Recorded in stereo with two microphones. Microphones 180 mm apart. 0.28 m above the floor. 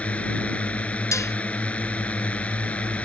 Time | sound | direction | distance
0.0 | a drone | 10° left (ahead or behind) | ?
1.1 | dishes clattering | 20° left (ahead or behind) | ?